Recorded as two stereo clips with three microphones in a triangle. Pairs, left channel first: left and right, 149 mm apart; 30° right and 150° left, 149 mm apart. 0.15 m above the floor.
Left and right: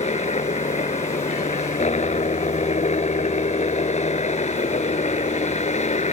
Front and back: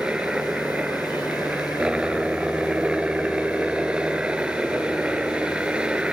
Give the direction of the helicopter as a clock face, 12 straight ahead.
10 o'clock.